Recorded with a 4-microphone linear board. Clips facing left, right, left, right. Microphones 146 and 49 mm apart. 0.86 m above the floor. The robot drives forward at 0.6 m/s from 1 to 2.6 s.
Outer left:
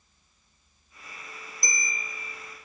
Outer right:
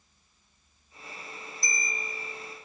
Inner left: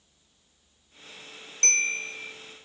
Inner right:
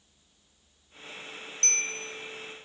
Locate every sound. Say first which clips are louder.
1.6 s a bell: even, inner left 6 dB; 45° left (ahead or behind), 1.4 m; by 2.3 s 35° left (ahead or behind), 1.6 m